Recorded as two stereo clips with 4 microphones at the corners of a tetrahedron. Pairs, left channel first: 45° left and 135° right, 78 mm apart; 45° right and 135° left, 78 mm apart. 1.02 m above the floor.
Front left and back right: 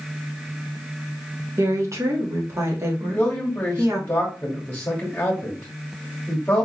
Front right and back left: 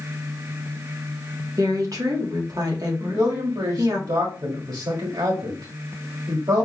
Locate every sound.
1.6 s a woman speaking: 175° left, 1.7 m
3.0 s a man speaking: 115° left, 1.9 m